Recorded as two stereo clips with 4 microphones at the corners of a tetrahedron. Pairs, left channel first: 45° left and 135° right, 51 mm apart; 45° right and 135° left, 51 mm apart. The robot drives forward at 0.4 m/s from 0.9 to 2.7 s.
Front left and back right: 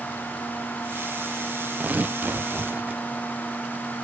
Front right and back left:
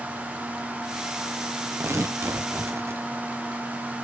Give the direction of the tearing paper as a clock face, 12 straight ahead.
6 o'clock.